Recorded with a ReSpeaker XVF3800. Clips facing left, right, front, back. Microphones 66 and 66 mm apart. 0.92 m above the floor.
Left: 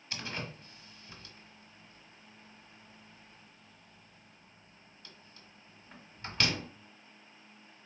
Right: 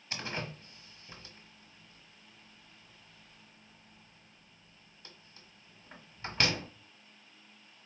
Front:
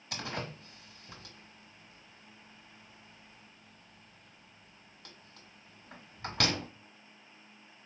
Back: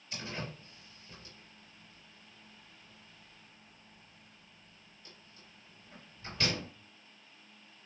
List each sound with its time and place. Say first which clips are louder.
0.1 s a door slam: right 2 dB, front 3 dB; 20° right, 1.1 m